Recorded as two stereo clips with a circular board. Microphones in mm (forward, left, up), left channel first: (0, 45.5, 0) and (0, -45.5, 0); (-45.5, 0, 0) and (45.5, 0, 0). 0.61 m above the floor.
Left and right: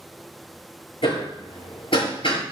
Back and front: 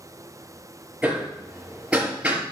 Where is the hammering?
80° left, 4.5 m.